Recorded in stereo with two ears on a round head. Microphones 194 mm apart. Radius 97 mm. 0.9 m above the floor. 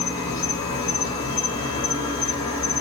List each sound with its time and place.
0.0 s an insect: 20° left (ahead or behind), 1.1 m